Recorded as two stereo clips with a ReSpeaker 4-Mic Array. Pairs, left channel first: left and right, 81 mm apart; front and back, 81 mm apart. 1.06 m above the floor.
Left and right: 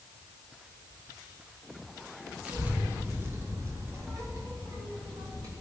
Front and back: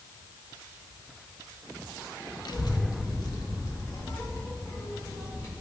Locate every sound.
2.5 s a child speaking: 15° right, 0.9 m; by 5.5 s 50° right, 2 m